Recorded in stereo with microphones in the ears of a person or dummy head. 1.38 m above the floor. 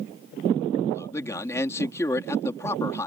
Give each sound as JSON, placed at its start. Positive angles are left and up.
{"t": 0.9, "sound": "a man speaking", "side_deg": 20}